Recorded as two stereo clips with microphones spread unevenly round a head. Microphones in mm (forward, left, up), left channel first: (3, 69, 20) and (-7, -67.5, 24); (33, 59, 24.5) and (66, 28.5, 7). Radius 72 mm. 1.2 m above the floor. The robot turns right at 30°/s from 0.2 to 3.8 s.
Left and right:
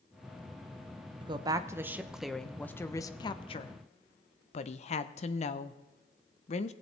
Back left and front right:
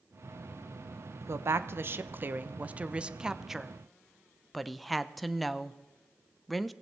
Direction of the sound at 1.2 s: 35° right.